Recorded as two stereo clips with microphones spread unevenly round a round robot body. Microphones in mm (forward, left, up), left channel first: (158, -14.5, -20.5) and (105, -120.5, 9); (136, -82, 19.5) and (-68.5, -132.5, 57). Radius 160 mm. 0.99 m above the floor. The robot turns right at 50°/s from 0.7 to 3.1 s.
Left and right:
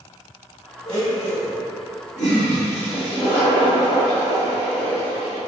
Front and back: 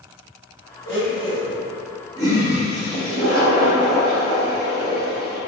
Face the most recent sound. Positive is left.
turn(degrees=145)